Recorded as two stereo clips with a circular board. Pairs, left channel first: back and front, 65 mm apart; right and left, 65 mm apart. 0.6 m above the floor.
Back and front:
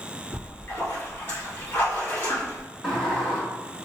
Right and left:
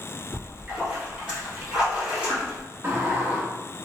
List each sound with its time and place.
0.3 s a splash: 155° left, 1.5 m
2.8 s a sliding door: 110° left, 1.2 m